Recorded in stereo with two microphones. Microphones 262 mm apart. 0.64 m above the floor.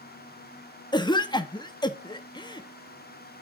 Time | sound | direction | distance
0.9 | a cough | 15° left (ahead or behind) | 0.5 m